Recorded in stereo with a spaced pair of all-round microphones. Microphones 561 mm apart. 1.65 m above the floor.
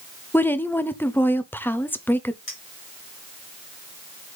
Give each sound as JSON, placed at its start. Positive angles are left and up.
{"t": 0.3, "sound": "a woman speaking", "side_deg": 5, "distance_m": 0.9}
{"t": 2.5, "sound": "a clink", "side_deg": 75, "distance_m": 2.5}